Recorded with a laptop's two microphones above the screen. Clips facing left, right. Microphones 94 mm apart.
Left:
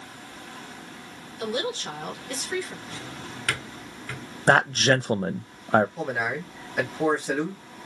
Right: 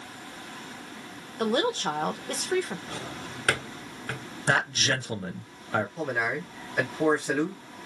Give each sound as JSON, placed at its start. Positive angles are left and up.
{"t": 1.4, "sound": "a woman speaking", "side_deg": -45, "distance_m": 0.8}
{"t": 2.9, "sound": "a drawer", "side_deg": -45, "distance_m": 1.0}
{"t": 4.5, "sound": "a man speaking", "side_deg": 45, "distance_m": 0.5}
{"t": 6.0, "sound": "a man speaking", "side_deg": 5, "distance_m": 1.3}